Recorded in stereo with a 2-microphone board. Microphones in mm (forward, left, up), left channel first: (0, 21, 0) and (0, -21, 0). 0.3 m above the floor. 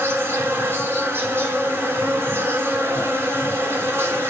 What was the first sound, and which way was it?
An insect, 75° right (ahead or behind).